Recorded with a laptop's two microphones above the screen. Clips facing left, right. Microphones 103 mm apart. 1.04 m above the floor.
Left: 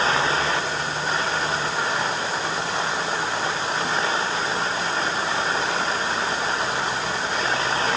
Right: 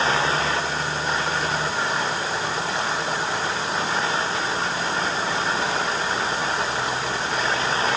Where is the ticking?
I don't hear ticking.